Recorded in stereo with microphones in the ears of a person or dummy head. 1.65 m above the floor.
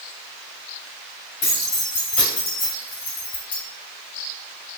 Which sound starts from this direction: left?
Keys jangling, at 1.4 s.